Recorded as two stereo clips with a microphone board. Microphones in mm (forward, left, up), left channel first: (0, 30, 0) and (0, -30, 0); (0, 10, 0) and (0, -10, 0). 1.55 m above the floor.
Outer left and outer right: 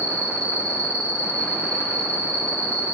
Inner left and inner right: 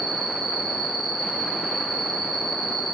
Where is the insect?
15° right (ahead or behind), 2.5 m.